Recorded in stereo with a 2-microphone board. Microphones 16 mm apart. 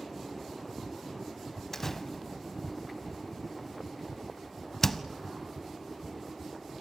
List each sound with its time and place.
1.7 s a door slam: 20° left (ahead or behind), 0.7 m